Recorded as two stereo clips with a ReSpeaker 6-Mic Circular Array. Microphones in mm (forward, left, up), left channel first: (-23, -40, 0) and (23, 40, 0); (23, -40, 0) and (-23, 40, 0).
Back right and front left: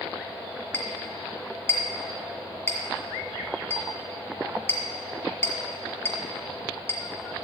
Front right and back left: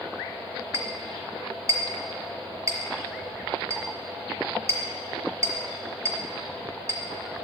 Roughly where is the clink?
Behind.